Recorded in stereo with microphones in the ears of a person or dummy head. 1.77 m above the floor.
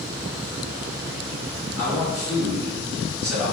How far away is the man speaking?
About 1.4 m.